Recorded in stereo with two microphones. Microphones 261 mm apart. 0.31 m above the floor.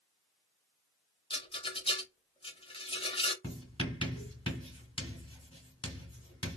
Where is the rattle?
20° left (ahead or behind), 0.7 m.